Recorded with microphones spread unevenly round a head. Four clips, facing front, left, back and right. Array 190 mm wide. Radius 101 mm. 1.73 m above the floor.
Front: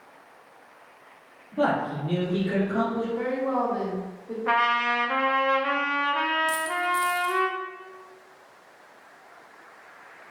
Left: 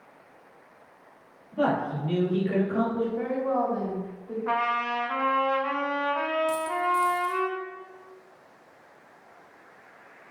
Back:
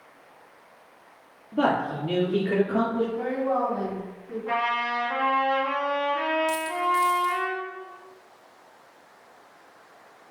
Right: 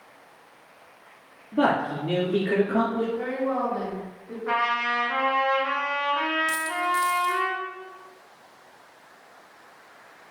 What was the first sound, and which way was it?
A man speaking, 115° right.